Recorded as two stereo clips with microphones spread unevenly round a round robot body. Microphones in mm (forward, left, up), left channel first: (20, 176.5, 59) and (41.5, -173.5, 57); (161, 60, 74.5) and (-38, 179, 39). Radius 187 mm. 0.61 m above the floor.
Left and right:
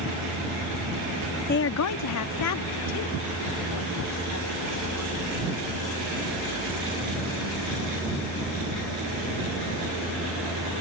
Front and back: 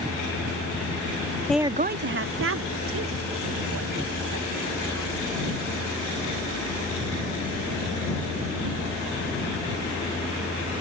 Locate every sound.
1.5 s a woman speaking: 65° left; by 6.4 s 145° left